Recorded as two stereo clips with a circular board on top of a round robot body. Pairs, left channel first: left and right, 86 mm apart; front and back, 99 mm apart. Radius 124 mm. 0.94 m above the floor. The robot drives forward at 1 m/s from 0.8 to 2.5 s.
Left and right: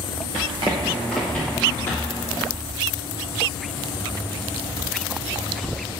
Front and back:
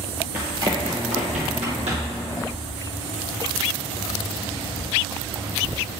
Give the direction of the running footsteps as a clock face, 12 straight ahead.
4 o'clock.